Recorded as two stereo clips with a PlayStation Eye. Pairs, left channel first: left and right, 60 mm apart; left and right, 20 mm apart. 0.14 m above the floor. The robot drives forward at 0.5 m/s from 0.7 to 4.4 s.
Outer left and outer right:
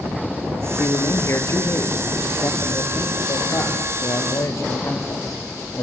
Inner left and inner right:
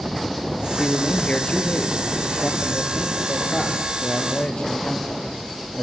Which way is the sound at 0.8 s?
50° left (ahead or behind).